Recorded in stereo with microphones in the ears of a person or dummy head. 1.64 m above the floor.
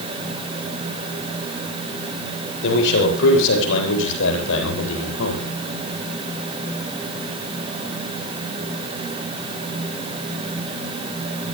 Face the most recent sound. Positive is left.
turn(degrees=80)